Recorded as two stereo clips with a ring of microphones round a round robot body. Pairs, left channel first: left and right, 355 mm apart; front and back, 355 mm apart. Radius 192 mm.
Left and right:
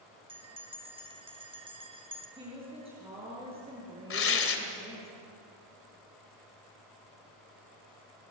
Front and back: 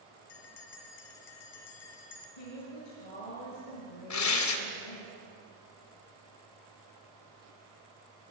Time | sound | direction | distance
0.3 | a bell | 15° right | 2.5 m
2.4 | a woman speaking | 15° right | 8.5 m
4.1 | tearing paper | 40° left | 2.5 m